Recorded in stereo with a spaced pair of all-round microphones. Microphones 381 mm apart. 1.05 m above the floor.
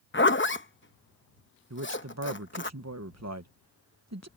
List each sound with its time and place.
0.1 s a zipper: 30° left (ahead or behind)
1.7 s a man speaking: 45° right (ahead or behind)